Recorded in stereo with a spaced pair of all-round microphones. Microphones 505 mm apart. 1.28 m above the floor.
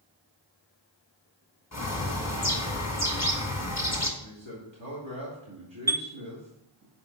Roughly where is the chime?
Centre.